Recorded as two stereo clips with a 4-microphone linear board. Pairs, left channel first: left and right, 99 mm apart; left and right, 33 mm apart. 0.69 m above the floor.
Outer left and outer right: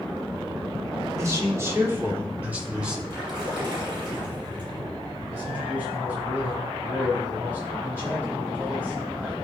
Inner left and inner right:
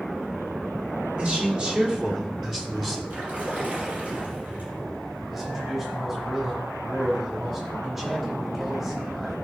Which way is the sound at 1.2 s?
35° right (ahead or behind).